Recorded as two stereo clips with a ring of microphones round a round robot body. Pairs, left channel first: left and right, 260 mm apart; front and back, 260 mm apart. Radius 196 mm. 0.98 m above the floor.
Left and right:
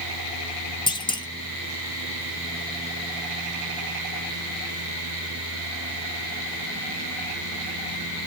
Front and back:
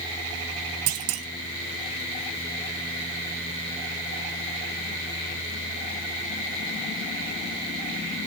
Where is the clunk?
160° left, 0.9 m.